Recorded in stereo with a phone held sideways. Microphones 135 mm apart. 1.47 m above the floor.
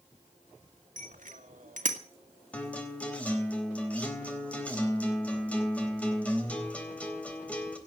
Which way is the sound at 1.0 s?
75° right (ahead or behind).